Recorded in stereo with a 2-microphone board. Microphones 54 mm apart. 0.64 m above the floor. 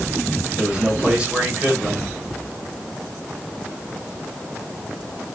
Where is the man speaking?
15° right (ahead or behind), 3 m.